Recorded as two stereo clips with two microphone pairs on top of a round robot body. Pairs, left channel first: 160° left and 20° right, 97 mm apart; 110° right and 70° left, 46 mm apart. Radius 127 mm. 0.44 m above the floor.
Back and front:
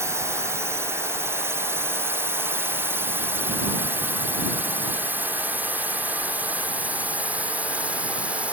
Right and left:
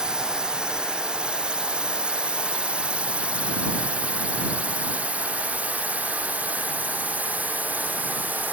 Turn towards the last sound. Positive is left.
turn(degrees=55)